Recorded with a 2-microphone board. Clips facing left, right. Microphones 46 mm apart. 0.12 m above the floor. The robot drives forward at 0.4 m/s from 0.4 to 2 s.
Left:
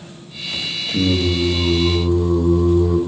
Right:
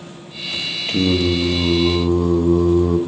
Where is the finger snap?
I don't hear a finger snap.